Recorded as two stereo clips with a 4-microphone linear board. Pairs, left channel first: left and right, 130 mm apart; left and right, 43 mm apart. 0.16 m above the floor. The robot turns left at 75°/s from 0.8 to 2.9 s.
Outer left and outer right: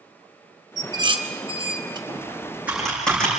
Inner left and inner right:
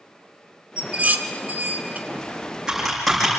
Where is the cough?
No cough in this recording.